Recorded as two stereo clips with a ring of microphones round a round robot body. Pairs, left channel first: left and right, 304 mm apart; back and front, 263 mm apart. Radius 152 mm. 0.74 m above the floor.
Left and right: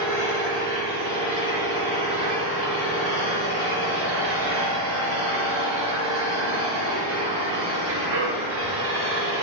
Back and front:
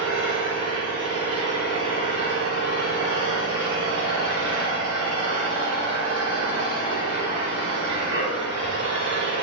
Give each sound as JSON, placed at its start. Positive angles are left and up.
{"t": 0.0, "sound": "an engine running", "azimuth_deg": -90, "distance_m": 1.9}